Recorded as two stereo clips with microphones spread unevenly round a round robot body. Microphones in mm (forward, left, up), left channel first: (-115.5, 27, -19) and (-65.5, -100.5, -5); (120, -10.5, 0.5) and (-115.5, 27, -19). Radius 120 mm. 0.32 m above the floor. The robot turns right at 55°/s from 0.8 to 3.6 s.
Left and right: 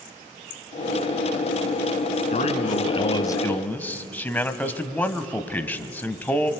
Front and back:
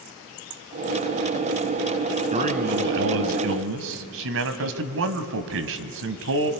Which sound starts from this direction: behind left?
A man speaking, at 2.3 s.